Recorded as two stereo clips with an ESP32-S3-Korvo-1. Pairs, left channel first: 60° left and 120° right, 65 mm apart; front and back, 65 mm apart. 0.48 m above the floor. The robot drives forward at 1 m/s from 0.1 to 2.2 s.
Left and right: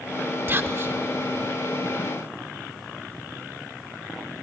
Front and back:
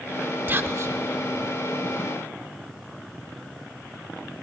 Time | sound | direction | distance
0.5 | whispering | 145° right | 1.0 m